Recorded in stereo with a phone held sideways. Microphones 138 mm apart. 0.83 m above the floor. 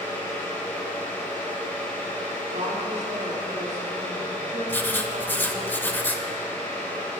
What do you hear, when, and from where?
0.0 s a fan: 15° left (ahead or behind), 2.5 m
2.5 s a woman speaking: 55° right (ahead or behind), 2 m
4.7 s writing: 15° left (ahead or behind), 0.7 m